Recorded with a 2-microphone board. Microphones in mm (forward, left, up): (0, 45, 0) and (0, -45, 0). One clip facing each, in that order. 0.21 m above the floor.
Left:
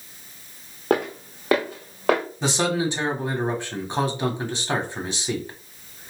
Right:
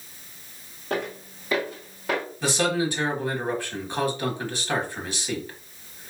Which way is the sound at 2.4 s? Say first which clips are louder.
Right 1 dB; 25° left (ahead or behind).